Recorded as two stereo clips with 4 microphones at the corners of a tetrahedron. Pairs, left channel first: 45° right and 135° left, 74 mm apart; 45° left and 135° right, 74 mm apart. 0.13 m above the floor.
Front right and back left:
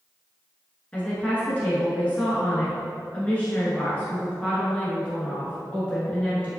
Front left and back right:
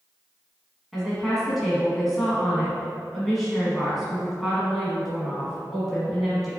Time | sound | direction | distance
0.9 | a woman speaking | 45° right | 1.1 m